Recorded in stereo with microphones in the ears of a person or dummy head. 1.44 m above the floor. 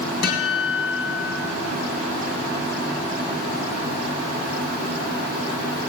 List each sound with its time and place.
0.2 s a guitar: 65° left (ahead or behind), 4 m